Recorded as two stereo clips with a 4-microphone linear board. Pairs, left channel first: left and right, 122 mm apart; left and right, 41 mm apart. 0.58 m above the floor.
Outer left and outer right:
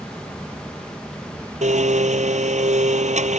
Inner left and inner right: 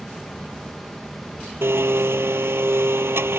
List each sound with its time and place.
1.6 s a blender: 75° right (ahead or behind)